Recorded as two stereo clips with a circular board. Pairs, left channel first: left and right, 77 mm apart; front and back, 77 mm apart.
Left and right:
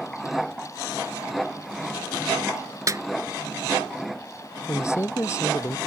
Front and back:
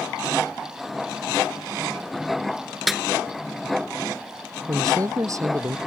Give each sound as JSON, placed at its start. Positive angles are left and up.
{"t": 2.9, "sound": "a snare drum", "azimuth_deg": -95}
{"t": 4.7, "sound": "a man speaking", "azimuth_deg": 140}